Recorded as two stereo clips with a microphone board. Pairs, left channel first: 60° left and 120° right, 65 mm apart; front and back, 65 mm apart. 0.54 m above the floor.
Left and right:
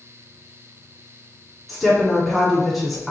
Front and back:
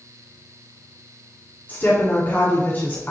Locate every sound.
1.7 s a woman speaking: 30° right, 1.4 m